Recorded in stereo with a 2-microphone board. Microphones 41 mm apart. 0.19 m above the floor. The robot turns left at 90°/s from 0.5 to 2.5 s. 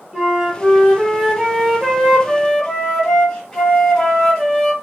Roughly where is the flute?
Centre.